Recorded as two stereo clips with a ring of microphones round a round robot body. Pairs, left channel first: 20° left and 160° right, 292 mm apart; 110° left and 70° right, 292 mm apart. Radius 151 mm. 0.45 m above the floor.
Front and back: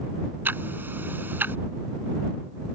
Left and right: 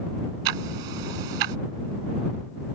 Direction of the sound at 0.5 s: 75° right.